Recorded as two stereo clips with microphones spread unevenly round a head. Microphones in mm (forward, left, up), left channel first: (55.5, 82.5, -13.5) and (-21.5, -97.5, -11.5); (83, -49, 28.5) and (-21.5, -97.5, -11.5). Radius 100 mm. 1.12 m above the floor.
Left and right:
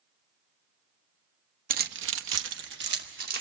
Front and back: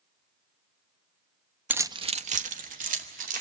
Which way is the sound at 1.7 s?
70° right.